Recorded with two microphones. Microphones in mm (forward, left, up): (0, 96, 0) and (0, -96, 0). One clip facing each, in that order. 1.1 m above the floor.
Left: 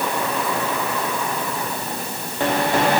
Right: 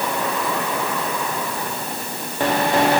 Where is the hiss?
I don't hear a hiss.